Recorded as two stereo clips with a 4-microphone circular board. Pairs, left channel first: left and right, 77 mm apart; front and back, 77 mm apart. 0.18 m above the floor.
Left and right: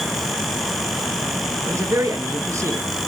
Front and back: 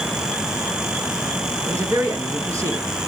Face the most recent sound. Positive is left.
turn(degrees=-135)